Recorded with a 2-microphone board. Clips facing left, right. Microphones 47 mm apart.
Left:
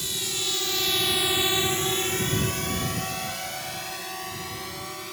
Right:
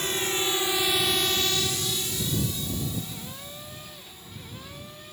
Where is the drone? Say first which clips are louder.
Right 5 dB; 40° right (ahead or behind); by 5.1 s 80° left.